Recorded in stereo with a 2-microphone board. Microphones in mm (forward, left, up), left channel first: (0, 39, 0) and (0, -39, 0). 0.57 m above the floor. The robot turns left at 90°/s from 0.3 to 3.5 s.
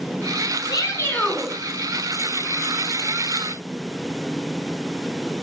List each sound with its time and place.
0.7 s a shout: 75° left, 3 m; by 1.5 s 5° right, 3 m